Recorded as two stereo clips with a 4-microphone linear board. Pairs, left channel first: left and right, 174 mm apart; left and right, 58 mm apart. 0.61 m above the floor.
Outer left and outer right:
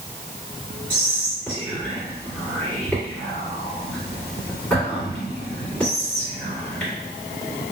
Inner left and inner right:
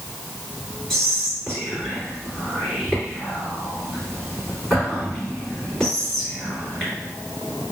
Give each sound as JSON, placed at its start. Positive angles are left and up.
{"t": 0.9, "sound": "whispering", "side_deg": 0, "distance_m": 1.7}